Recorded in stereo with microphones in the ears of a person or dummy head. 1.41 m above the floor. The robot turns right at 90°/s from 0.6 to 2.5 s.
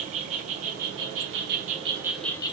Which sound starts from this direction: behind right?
An insect, at 0.0 s.